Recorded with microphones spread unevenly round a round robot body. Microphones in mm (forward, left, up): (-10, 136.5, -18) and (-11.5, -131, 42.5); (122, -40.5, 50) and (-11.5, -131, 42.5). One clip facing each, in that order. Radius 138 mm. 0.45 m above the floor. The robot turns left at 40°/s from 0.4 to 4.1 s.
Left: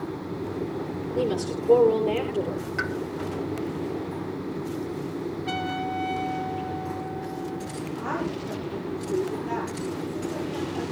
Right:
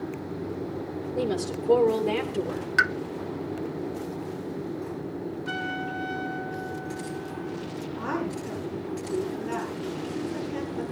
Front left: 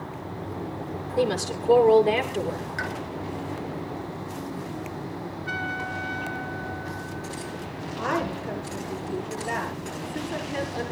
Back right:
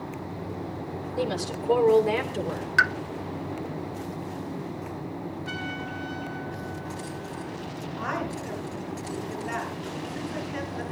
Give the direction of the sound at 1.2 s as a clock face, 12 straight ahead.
12 o'clock.